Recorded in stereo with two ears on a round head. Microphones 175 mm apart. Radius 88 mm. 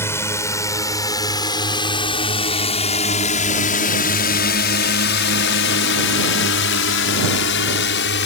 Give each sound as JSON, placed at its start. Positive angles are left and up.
{"t": 0.0, "sound": "a drone", "side_deg": 15}